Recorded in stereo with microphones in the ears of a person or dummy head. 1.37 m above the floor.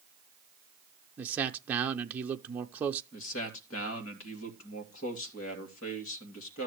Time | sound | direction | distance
1.2 | a man speaking | 10° right (ahead or behind) | 0.6 m
3.1 | a man speaking | 75° left (ahead or behind) | 2.5 m